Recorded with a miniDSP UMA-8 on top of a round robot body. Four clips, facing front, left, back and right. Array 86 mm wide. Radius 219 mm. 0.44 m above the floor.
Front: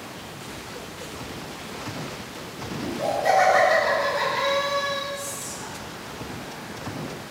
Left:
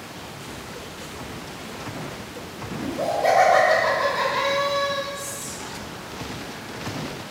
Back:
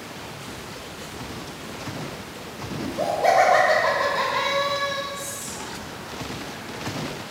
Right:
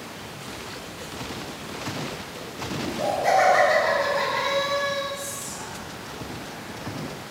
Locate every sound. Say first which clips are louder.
2.8 s laughter: left 2 dB, back 3 dB; 160° left, 1.4 m
5.1 s whispering: even, even; straight behind, 1.6 m